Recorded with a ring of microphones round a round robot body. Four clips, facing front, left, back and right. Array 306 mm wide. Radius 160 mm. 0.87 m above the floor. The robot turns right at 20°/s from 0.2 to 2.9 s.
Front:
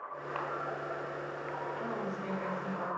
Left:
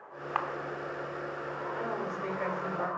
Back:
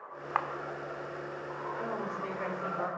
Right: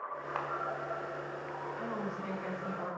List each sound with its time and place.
0.3 s a camera shutter: 150° left, 1.1 m; by 0.5 s 155° left, 1.1 m
1.7 s a woman speaking: 105° left, 3 m; by 2.9 s 130° left, 3 m